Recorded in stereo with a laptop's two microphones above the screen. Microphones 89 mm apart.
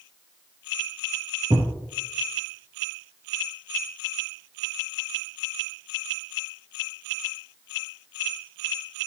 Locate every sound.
1.5 s a thud: 40° right (ahead or behind), 1.4 m